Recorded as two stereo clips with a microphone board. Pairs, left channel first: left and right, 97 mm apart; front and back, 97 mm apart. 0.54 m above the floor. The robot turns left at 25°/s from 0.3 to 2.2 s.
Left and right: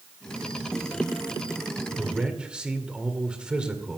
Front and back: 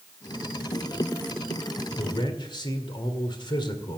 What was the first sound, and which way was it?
A man speaking, 5° right.